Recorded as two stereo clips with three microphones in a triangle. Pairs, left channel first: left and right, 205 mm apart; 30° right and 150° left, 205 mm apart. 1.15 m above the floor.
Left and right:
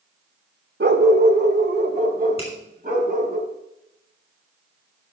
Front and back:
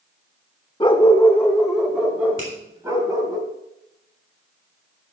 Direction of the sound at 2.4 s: 150° left.